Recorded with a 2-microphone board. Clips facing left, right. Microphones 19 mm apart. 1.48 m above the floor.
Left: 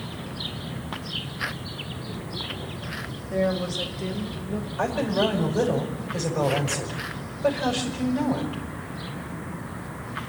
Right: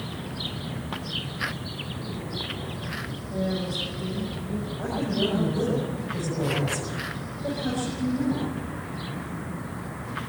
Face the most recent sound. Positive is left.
turn(degrees=80)